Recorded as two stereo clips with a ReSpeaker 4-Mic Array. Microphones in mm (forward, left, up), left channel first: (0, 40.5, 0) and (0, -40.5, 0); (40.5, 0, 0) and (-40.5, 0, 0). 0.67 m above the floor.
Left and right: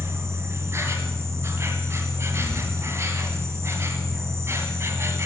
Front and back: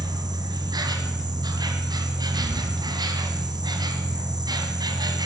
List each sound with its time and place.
0.0 s an insect: 145° right, 1.8 m